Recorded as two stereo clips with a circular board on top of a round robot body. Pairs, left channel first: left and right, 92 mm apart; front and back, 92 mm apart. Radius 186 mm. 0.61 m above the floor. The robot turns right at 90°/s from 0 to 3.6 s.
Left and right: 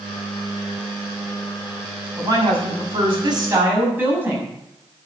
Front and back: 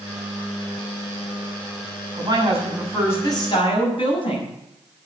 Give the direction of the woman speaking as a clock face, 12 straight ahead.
5 o'clock.